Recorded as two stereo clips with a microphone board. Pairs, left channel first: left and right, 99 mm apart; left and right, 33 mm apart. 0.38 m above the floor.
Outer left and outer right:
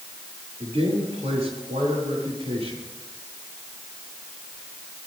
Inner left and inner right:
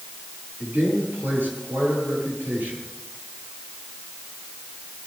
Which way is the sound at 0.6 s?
75° right (ahead or behind).